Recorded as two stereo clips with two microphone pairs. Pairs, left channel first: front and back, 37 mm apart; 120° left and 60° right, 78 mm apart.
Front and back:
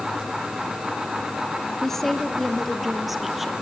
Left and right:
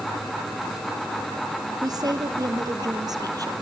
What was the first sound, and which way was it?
A woman speaking, 75° right.